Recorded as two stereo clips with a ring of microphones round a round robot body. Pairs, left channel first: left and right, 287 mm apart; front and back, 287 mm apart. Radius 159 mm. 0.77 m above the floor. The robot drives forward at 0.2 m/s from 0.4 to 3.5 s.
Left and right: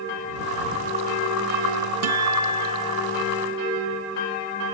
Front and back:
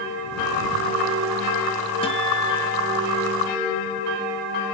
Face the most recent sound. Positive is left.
turn(degrees=-90)